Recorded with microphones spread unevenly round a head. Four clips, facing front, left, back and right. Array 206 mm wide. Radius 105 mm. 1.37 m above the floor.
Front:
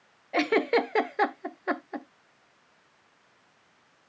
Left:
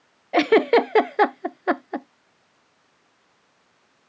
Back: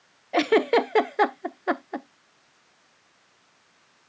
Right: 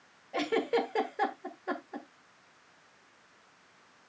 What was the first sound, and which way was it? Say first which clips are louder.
A giggle: left 13 dB, back 4 dB; 110° left.